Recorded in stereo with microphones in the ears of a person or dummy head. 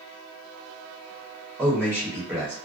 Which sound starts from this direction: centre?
A man speaking, at 1.6 s.